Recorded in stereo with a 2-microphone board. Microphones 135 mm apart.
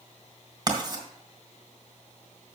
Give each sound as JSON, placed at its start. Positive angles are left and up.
{"t": 0.7, "sound": "writing", "side_deg": -30, "distance_m": 2.0}